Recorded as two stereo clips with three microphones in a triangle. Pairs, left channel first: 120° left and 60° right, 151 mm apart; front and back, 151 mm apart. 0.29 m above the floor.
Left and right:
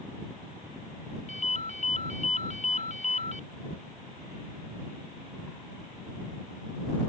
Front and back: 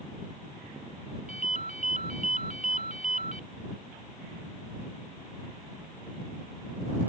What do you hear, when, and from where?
1.3 s a ringtone: 155° left